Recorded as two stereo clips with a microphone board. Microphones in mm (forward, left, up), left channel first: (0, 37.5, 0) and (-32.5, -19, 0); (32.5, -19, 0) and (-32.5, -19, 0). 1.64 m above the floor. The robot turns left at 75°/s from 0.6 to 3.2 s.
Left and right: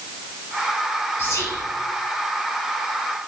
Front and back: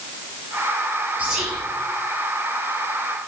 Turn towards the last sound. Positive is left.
turn(degrees=-35)